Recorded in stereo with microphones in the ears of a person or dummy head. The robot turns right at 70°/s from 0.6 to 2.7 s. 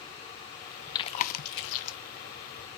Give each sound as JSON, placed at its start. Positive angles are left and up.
{"t": 0.9, "sound": "chewing", "side_deg": 25, "distance_m": 0.6}